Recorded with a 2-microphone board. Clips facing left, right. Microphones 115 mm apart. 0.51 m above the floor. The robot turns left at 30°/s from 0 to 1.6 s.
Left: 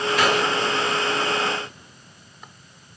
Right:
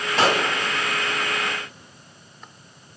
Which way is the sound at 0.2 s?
30° right (ahead or behind).